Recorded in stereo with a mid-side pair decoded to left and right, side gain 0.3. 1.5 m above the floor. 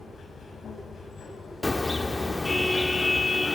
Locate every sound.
0.0 s a machine running: 70° left, 6 m
1.6 s a car horn: 25° left, 2.5 m